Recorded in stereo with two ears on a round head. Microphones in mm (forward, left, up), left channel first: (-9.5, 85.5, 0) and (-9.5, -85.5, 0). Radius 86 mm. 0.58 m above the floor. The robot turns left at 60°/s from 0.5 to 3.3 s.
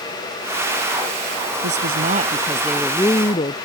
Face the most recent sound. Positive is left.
turn(degrees=150)